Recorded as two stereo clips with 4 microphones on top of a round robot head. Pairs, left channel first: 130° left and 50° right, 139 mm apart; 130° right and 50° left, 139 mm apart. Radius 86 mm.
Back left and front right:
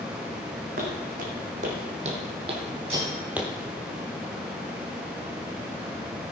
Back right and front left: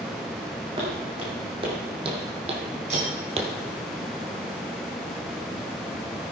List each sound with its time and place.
0.8 s footsteps: 10° right, 3.5 m; by 3.5 s 35° left, 1.3 m
2.9 s cutlery clinking: straight ahead, 6 m